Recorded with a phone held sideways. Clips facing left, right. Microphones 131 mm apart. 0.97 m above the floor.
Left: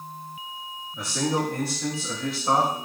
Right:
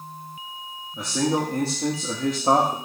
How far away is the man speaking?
About 1.6 m.